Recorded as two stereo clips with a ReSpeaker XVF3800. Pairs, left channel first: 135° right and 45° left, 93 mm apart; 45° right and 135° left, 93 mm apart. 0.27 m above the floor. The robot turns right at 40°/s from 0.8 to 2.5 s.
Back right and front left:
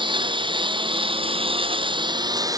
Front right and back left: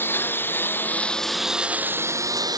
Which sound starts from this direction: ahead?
A lawn mower, at 0.0 s.